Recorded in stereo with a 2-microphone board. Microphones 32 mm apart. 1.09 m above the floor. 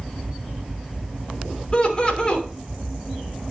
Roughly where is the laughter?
Left.